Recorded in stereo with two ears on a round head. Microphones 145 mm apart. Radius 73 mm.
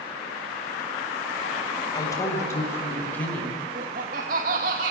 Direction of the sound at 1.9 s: 25° left (ahead or behind).